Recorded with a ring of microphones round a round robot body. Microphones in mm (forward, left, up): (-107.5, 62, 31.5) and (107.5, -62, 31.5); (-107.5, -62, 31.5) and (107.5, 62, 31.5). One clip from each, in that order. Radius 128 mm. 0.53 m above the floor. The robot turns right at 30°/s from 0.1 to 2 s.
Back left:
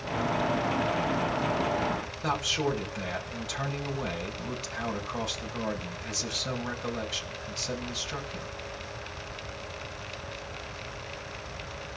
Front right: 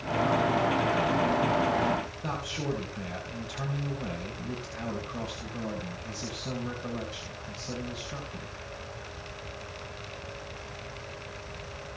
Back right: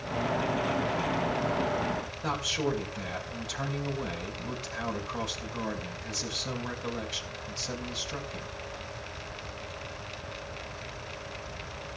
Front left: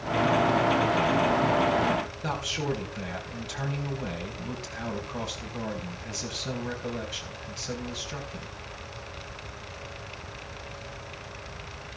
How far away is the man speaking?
About 4.5 m.